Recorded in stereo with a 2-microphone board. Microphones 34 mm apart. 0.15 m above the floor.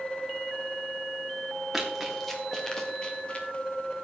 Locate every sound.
1.7 s running footsteps: 5° right (ahead or behind), 3 m; by 3.5 s 35° left (ahead or behind), 2.5 m